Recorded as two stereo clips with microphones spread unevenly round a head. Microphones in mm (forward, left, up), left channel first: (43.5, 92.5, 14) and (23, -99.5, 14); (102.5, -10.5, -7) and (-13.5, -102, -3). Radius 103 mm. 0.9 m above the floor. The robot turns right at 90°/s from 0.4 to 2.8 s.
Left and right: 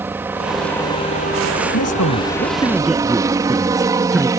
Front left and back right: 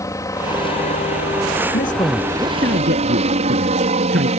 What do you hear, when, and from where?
0.0 s a helicopter: 20° right; by 4.4 s 165° right
1.7 s a man speaking: 80° left; by 4.3 s 175° left